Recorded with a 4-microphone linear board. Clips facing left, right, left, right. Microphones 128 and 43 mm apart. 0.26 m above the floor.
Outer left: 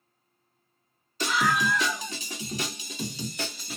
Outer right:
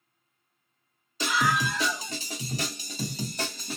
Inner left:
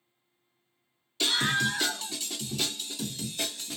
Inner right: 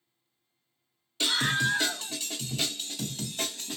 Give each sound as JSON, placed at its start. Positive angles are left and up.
{"t": 1.2, "sound": "a scream", "side_deg": -15, "distance_m": 1.6}